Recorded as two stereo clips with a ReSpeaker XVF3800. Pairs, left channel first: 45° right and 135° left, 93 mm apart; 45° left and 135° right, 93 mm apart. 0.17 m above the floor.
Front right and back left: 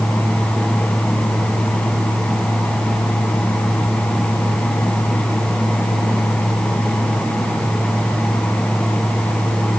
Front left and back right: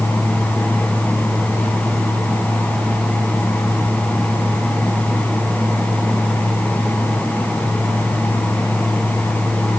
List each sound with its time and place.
Only background noise.